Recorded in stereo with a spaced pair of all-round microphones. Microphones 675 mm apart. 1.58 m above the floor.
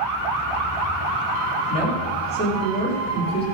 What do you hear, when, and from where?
1.7 s a woman speaking: 10° left (ahead or behind), 4.5 m